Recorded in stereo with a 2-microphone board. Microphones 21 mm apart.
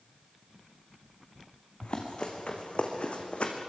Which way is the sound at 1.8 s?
60° left (ahead or behind).